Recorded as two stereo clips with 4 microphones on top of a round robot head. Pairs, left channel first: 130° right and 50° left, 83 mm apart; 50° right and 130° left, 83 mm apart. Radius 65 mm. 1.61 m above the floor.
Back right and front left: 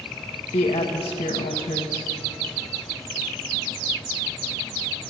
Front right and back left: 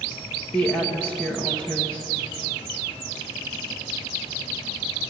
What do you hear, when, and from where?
0.5 s a woman speaking: 120° right, 1.3 m